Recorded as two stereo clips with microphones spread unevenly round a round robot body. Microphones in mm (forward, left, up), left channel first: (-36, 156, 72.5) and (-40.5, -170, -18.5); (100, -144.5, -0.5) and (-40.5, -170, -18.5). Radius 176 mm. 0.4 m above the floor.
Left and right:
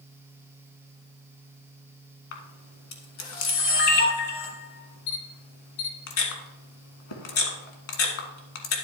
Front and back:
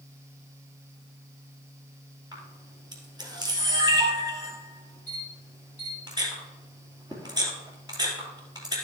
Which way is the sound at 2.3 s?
85° left.